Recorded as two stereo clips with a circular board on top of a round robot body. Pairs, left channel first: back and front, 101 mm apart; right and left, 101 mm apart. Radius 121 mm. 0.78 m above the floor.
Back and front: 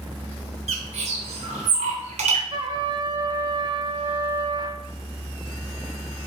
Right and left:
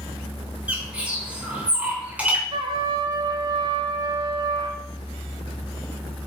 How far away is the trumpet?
About 0.5 m.